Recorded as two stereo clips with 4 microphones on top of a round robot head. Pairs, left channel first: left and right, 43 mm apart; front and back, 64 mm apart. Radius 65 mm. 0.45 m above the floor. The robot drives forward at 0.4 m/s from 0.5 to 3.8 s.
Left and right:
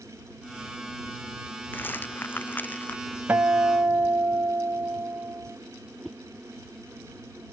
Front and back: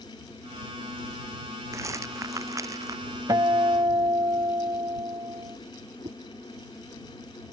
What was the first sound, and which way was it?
A rattle, 135° left.